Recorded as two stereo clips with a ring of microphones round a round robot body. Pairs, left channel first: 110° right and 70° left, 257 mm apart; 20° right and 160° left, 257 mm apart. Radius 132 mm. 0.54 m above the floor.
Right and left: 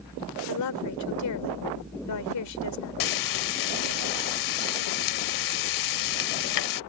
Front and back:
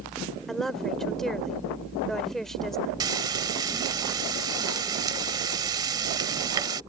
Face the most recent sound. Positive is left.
turn(degrees=-125)